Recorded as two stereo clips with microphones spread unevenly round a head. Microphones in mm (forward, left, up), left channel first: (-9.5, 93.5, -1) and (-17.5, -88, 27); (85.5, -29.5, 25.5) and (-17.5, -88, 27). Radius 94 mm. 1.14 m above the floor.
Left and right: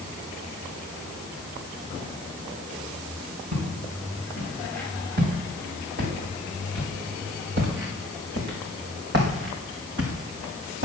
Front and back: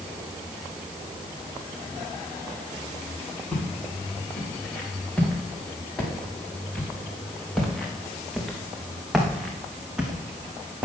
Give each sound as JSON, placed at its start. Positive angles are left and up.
{"t": 3.5, "sound": "footsteps", "azimuth_deg": -50, "distance_m": 7.5}